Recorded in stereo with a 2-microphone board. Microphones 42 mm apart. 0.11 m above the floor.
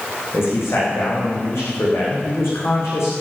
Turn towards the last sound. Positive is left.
turn(degrees=75)  # may be behind; listen again after turning